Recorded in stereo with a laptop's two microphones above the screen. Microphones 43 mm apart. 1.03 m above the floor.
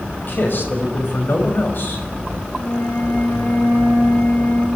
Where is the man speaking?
50° left (ahead or behind), 5.5 m.